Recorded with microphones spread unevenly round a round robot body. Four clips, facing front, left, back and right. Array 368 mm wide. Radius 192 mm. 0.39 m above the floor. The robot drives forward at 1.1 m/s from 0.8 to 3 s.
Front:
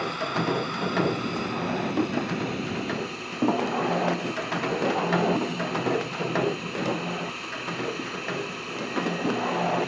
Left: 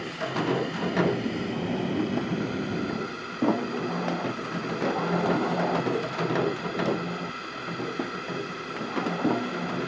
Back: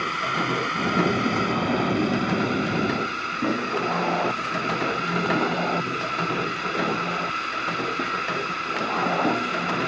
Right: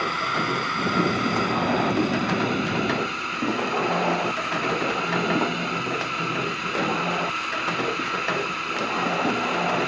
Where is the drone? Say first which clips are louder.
Right 4 dB, back 2 dB; 120° right; by 9.9 s 130° right.